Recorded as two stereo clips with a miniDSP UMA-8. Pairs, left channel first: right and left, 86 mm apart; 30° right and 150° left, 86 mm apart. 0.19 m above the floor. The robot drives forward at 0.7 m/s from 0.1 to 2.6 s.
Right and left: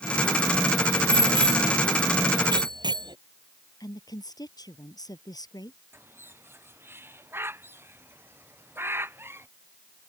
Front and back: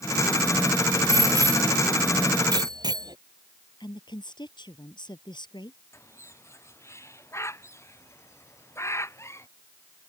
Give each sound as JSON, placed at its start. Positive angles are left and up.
{"t": 1.1, "sound": "a bicycle bell", "azimuth_deg": 100}
{"t": 3.8, "sound": "a woman speaking", "azimuth_deg": -50}
{"t": 5.9, "sound": "a bird", "azimuth_deg": 25}